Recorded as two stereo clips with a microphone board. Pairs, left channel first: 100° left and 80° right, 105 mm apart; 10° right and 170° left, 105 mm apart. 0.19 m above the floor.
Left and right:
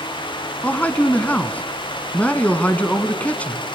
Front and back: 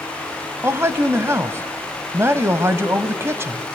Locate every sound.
0.6 s a man speaking: 155° left, 1.0 m